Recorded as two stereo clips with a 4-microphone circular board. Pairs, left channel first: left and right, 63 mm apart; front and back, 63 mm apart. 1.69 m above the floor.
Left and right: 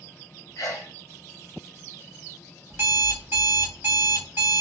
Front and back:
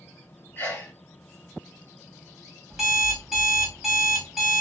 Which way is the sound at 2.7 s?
100° right.